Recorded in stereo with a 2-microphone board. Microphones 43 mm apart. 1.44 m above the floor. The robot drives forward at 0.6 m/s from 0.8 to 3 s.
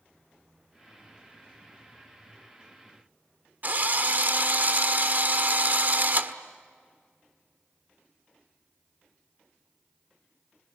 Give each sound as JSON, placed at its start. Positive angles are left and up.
{"t": 3.6, "sound": "a drill", "side_deg": -45, "distance_m": 1.4}